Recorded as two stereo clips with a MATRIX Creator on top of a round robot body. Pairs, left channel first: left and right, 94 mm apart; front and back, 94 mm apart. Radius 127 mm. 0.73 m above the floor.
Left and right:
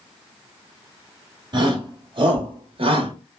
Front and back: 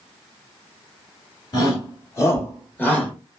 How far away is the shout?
About 2.0 m.